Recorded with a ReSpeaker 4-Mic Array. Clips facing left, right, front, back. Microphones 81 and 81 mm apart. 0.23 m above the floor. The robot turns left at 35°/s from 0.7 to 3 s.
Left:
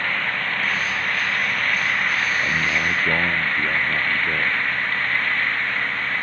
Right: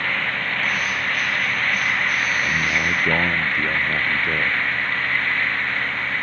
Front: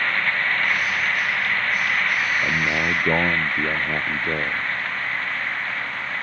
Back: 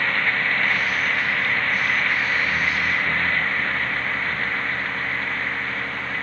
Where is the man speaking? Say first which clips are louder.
Even, front 1 dB; 10° left; by 4.7 s 10° right.